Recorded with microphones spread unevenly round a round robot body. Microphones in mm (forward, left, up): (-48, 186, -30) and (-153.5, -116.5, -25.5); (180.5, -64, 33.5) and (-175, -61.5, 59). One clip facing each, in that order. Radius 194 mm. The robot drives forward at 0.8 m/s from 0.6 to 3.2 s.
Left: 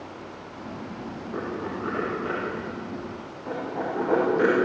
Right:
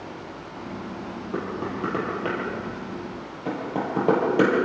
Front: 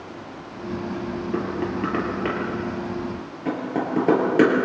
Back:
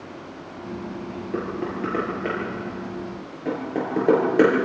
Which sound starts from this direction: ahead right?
Knocking, at 1.3 s.